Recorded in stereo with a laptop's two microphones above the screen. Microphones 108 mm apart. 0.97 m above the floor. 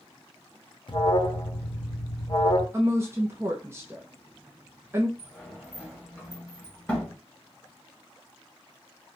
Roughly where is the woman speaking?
Right.